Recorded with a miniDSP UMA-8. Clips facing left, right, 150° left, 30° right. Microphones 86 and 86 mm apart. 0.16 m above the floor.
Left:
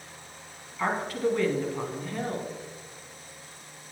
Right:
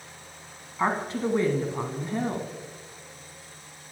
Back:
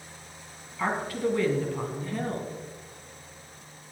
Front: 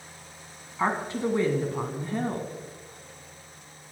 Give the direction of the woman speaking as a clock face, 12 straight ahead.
2 o'clock.